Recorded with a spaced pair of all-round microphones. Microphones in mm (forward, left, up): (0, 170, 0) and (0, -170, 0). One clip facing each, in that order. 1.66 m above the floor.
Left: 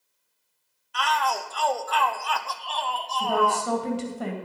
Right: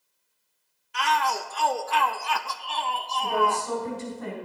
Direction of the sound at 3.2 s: 85° left.